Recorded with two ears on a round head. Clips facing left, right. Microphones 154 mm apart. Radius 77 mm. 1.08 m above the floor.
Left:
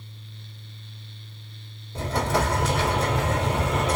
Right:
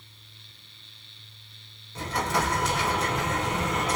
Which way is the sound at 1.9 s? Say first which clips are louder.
Left 3 dB; 25° left (ahead or behind).